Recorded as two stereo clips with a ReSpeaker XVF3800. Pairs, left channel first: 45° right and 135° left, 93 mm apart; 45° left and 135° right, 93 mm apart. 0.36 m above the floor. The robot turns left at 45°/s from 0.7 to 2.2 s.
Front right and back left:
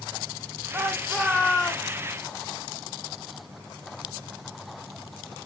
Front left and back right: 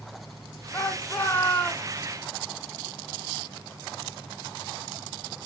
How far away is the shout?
About 0.9 m.